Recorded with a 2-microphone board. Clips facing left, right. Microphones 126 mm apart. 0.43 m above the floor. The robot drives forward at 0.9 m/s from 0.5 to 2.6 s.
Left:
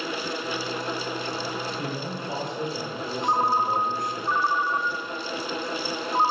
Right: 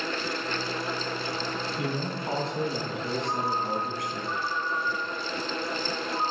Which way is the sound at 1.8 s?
75° right (ahead or behind).